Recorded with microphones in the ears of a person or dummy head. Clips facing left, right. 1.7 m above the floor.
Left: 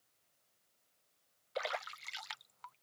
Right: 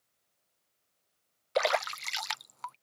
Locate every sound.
1.6 s a splash: 65° right (ahead or behind)